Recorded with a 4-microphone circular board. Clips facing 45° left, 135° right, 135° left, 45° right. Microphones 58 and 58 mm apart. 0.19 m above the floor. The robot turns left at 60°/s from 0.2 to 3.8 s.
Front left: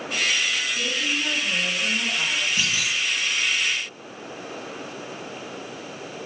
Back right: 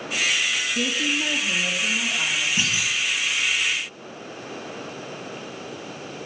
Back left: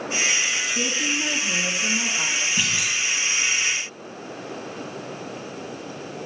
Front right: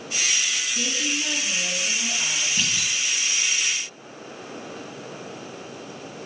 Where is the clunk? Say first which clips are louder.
Even, back left 2 dB; 165° right, 1.7 m; by 3.0 s 170° left, 1.7 m.